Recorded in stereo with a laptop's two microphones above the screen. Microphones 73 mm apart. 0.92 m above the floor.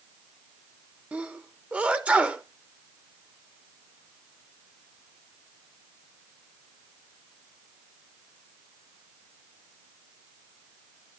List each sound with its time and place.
1.1 s a sneeze: 20° right (ahead or behind), 0.9 m